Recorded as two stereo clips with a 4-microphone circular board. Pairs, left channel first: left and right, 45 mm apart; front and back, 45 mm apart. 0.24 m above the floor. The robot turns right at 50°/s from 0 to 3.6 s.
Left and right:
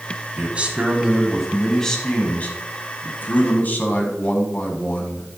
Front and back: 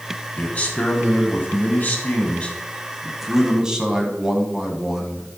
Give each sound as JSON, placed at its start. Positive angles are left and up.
{"t": 0.4, "sound": "a man speaking", "azimuth_deg": -55, "distance_m": 1.6}